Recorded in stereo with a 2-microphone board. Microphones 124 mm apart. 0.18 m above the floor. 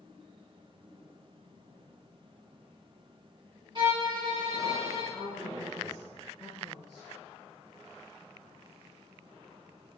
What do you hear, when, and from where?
3.8 s a violin: 40° right (ahead or behind), 2.0 m
5.1 s a woman speaking: centre (ahead or behind), 1.7 m